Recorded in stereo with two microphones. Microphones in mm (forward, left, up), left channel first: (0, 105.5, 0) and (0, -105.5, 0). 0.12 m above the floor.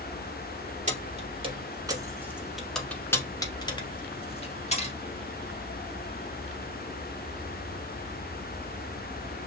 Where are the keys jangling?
35° right (ahead or behind), 1.3 m; by 5.0 s 35° left (ahead or behind), 1.8 m.